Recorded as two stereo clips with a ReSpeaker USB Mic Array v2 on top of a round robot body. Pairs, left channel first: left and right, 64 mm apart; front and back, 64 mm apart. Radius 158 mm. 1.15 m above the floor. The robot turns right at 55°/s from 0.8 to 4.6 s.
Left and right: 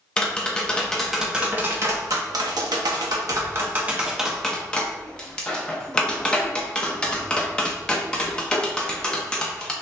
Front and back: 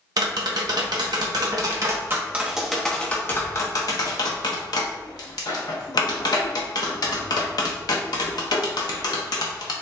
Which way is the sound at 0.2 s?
165° left.